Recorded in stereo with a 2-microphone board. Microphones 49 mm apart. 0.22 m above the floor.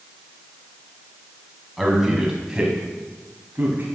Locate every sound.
1.8 s a man speaking: centre (ahead or behind), 1.8 m; by 3.9 s 35° right (ahead or behind), 1.6 m